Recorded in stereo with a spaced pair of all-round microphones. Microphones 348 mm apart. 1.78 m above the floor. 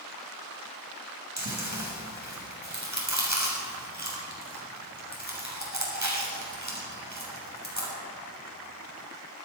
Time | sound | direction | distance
1.4 | chewing | 55° right (ahead or behind) | 7 m